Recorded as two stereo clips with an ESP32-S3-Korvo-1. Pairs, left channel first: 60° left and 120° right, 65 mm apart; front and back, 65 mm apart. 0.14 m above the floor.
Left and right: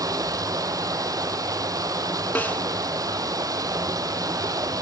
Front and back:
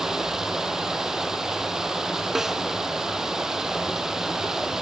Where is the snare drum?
100° left, 0.5 m.